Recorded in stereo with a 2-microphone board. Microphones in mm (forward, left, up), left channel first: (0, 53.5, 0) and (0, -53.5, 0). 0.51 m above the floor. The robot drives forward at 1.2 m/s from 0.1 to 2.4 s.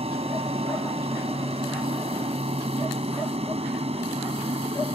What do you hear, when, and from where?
0.0 s an aircraft: 70° right (ahead or behind)